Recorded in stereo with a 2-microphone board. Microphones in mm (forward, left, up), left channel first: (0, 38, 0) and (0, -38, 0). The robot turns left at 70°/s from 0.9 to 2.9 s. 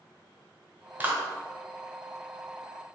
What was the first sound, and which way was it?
A clap, 20° right (ahead or behind).